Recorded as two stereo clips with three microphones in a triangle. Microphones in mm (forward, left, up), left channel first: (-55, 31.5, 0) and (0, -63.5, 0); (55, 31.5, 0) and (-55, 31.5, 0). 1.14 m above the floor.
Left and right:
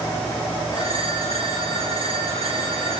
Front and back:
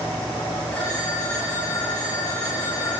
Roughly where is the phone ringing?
Right.